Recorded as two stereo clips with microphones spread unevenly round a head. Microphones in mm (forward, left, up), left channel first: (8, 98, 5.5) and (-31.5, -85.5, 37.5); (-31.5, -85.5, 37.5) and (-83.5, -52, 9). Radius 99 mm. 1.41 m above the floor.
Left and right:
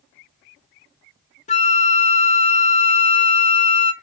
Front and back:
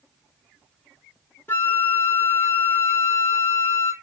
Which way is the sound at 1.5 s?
20° left.